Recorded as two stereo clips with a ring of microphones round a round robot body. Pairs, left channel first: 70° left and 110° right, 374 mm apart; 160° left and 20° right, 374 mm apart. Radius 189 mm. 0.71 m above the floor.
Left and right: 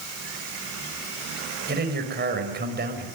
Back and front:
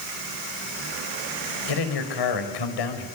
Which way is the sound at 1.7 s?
175° right.